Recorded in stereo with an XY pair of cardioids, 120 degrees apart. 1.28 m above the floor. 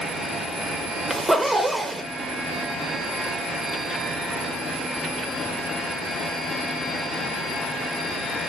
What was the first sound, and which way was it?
A zipper, straight ahead.